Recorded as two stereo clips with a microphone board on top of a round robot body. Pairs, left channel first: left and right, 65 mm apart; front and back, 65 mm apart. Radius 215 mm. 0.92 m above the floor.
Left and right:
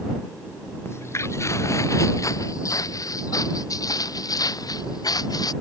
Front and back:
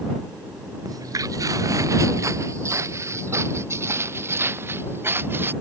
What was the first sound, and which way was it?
Footsteps, 145° left.